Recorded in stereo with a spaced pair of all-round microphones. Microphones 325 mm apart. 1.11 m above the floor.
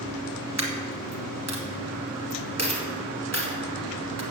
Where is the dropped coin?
50° right (ahead or behind), 1.9 m.